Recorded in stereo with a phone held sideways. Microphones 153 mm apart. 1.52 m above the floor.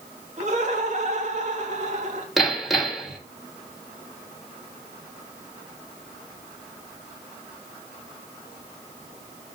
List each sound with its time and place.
0.4 s laughter: 50° right (ahead or behind), 3 m
2.4 s hammering: centre (ahead or behind), 2.5 m